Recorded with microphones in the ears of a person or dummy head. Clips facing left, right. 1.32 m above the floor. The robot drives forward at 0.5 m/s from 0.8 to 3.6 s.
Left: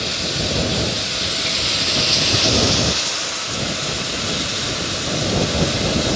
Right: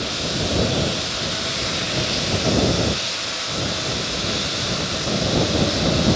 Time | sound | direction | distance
0.0 | running water | 25° left (ahead or behind) | 1.0 m